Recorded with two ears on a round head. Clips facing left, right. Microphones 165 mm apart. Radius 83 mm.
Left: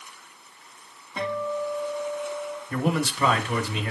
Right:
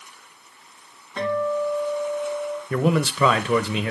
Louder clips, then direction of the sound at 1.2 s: Right 5 dB; 10° left (ahead or behind).